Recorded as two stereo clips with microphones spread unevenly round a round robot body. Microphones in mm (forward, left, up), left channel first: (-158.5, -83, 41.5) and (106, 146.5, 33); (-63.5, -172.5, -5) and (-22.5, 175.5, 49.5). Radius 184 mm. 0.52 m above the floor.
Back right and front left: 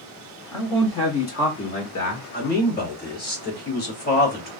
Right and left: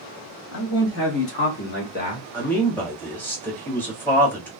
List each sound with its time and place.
0.5 s a man speaking: 55° right, 1.8 m; by 2.2 s 145° right, 1.3 m
2.3 s a man speaking: 155° right, 1.3 m